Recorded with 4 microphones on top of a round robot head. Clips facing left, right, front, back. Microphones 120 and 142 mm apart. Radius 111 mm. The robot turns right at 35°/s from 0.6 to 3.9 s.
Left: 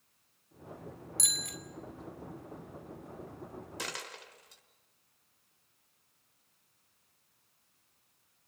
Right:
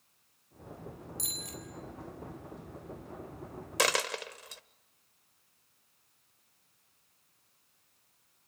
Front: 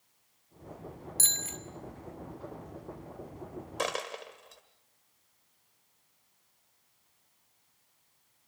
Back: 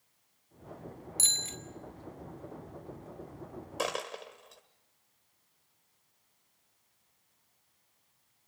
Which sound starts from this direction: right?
A dropped coin, at 3.8 s.